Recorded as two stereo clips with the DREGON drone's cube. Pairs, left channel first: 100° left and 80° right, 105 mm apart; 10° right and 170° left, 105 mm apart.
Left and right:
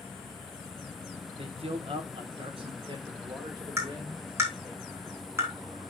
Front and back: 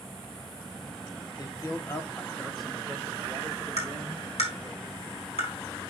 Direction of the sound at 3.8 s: 15° right.